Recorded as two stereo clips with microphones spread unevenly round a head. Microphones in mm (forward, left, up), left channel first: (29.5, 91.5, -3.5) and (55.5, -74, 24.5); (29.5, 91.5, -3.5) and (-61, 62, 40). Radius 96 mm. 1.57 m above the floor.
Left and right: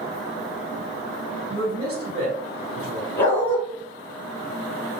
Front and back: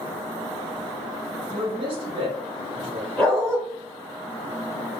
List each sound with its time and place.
1.5 s a man speaking: 115° right, 1.6 m
3.2 s a dog barking: 175° right, 1.0 m